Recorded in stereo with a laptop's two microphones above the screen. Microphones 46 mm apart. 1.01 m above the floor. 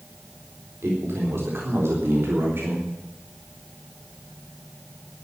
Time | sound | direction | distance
0.8 | a man speaking | 65° right (ahead or behind) | 4 m